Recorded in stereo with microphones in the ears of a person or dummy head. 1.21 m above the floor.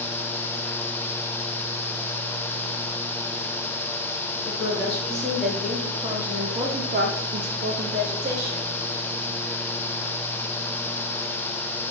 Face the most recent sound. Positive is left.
turn(degrees=-30)  # may be behind; listen again after turning